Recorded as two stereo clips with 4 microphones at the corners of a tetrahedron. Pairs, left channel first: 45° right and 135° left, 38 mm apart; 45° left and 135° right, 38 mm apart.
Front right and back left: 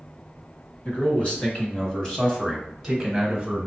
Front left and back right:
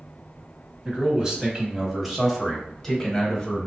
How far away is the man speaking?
About 1.6 m.